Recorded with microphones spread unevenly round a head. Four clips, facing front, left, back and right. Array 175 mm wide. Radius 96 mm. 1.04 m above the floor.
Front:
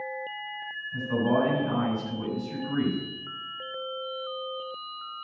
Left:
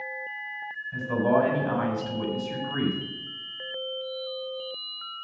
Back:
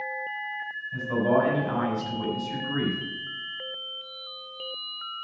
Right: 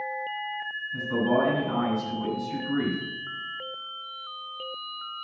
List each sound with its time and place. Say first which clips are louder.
0.9 s a man speaking: left 1 dB, back 2 dB; 120° left, 6.5 m